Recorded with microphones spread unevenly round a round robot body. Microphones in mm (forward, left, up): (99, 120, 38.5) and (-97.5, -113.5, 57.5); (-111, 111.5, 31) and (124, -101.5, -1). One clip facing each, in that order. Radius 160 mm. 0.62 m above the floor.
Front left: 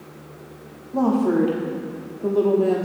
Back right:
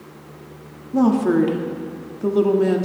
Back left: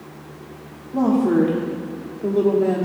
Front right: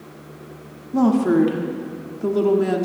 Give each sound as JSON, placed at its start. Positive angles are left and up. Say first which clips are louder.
{"t": 0.9, "sound": "a woman speaking", "louder": "back right 3 dB, front right 1 dB", "azimuth_deg": -80, "distance_m": 1.5}